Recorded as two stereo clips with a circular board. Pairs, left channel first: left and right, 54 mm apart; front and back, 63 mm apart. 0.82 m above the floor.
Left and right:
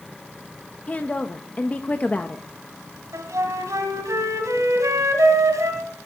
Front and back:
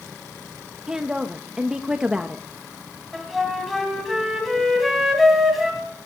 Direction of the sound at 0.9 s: 115° left.